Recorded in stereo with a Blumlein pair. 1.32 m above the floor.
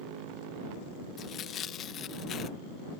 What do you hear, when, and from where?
1.2 s tearing paper: 30° left